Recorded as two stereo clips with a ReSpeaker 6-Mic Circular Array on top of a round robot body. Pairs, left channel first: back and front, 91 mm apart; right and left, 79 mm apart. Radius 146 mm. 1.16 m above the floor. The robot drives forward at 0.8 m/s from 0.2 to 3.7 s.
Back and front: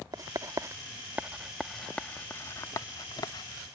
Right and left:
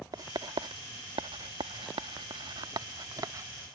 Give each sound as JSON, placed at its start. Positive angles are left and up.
{"t": 0.1, "sound": "writing", "azimuth_deg": 50}